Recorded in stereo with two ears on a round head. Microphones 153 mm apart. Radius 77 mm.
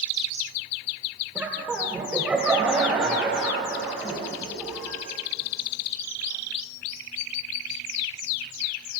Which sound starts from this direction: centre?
Laughter, at 1.4 s.